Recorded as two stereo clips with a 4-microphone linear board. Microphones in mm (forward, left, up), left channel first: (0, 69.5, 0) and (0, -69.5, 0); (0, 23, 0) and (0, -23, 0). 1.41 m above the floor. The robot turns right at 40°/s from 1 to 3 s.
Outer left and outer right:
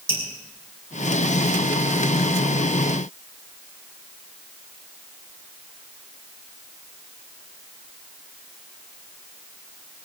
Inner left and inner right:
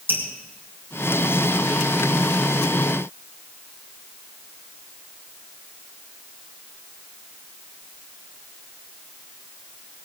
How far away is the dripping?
About 5 m.